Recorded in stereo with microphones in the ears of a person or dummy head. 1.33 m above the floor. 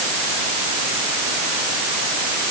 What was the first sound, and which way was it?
Only background noise.